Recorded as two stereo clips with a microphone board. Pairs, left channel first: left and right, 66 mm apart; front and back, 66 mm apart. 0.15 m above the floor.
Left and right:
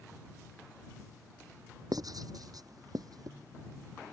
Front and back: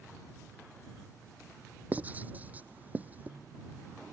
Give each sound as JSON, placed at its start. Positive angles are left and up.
{"t": 1.9, "sound": "writing", "azimuth_deg": -115}